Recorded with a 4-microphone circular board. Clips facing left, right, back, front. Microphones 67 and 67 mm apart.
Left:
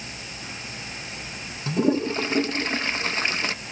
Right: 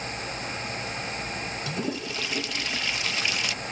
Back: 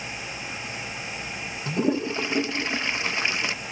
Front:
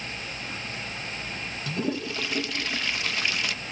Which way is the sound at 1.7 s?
125° left.